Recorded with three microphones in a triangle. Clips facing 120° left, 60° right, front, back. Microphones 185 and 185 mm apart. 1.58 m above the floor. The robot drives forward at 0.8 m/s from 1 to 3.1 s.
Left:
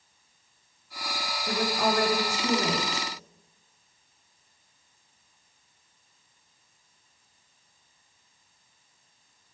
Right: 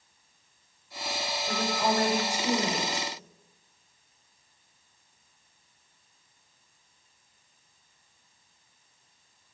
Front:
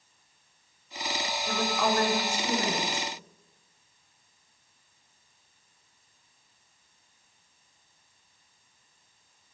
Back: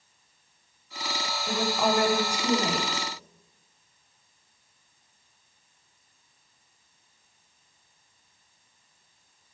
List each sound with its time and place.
1.5 s a woman speaking: 100° left, 5 m; by 3.1 s 110° left, 5 m